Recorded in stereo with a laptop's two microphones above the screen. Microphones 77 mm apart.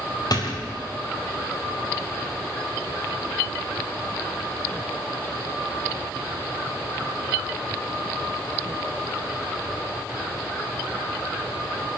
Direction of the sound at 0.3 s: 55° left (ahead or behind).